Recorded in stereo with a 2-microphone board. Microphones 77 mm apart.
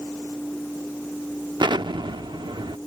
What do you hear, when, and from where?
1.6 s an explosion: 85° right